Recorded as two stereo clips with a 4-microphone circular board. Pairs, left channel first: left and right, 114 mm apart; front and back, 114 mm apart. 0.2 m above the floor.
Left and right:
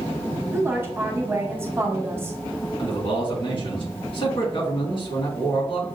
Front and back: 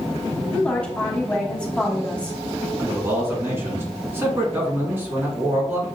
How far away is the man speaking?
About 1.8 m.